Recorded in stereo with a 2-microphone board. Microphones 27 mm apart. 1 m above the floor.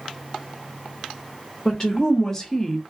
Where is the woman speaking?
20° left (ahead or behind), 0.8 m; by 2.8 s 5° left (ahead or behind), 0.6 m.